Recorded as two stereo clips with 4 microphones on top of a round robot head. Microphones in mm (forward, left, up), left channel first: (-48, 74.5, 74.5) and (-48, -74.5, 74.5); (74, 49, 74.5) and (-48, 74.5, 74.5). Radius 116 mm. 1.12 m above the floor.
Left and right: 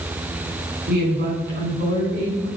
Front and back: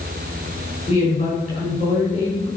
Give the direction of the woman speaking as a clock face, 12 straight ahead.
2 o'clock.